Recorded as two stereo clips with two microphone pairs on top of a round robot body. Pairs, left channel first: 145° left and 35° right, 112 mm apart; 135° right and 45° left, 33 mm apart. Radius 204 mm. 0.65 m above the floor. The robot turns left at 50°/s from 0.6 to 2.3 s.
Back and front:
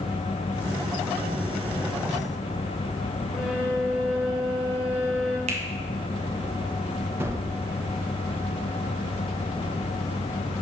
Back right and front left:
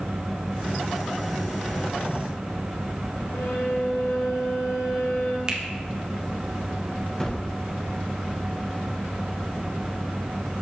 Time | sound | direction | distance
3.3 | a violin | 120° right | 0.6 m
5.5 | a finger snap | 20° right | 1.5 m
7.2 | a gunshot | 85° right | 1.2 m